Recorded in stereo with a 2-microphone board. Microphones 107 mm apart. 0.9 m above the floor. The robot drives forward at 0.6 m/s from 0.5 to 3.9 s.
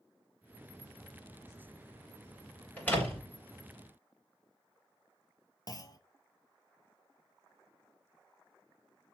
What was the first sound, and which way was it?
A door slam, 15° left (ahead or behind).